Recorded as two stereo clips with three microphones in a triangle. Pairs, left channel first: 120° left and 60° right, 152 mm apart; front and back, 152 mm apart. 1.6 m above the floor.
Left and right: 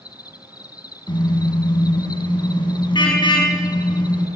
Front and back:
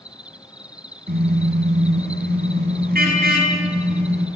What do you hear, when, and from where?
0.0 s an insect: 110° left, 0.9 m
1.1 s a car horn: straight behind, 5.5 m